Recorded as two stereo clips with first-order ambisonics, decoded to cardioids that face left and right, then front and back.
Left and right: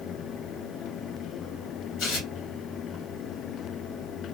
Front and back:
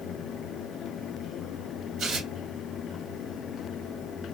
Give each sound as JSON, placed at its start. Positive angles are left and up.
{"t": 2.0, "sound": "tearing paper", "azimuth_deg": 125, "distance_m": 1.2}